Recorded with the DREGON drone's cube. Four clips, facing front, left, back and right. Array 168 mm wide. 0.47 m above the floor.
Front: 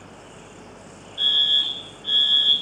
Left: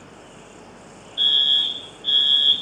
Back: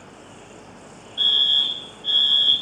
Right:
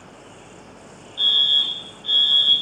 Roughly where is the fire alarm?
Behind left.